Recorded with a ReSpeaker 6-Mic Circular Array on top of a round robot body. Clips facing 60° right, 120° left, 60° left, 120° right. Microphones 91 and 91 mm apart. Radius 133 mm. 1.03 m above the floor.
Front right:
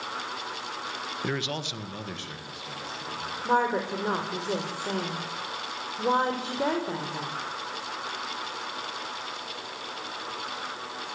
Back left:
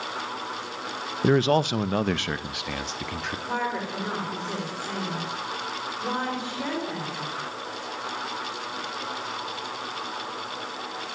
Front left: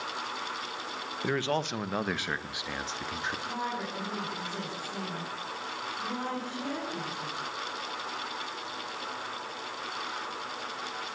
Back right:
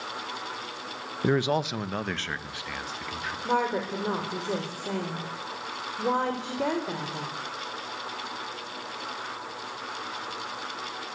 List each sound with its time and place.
1.2 s a man speaking: 175° left, 0.9 m; by 3.4 s 120° left, 2.5 m
3.5 s a woman speaking: 115° right, 5 m